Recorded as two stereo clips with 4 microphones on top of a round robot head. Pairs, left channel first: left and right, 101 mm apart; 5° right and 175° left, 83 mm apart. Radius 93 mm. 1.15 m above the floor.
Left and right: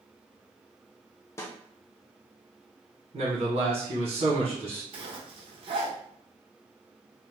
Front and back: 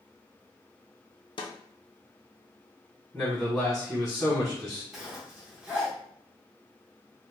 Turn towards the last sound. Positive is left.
turn(degrees=-100)